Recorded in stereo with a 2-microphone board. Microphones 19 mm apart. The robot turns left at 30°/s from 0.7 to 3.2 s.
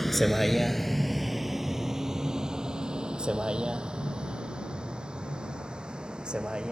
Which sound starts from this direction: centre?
A vehicle, at 0.0 s.